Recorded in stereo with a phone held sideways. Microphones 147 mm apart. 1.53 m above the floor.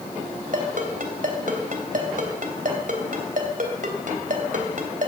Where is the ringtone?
65° right (ahead or behind), 2.5 m.